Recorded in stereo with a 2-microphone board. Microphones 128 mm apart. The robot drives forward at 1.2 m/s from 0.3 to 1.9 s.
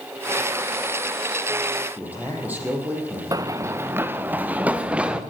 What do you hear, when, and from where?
2.0 s a man speaking: 15° right (ahead or behind), 6.5 m
3.3 s running footsteps: 30° right (ahead or behind), 1.1 m; by 5.2 s 10° right (ahead or behind), 2.5 m